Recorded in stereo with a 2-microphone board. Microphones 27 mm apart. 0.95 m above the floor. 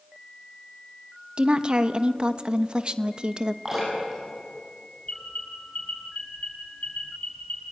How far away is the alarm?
About 9.5 m.